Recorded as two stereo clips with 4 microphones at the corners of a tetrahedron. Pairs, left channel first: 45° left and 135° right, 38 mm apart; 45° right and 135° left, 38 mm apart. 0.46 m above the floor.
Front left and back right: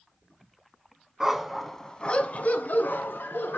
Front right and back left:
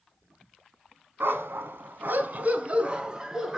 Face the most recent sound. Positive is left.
turn(degrees=60)